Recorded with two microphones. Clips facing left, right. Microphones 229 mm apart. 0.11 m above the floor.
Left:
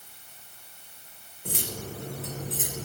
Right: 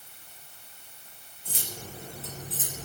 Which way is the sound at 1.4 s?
60° left (ahead or behind).